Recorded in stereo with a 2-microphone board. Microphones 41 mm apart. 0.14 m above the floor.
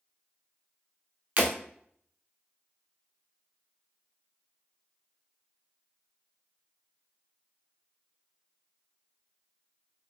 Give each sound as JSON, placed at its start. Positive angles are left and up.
{"t": 1.4, "sound": "breaking glass", "side_deg": -40, "distance_m": 1.1}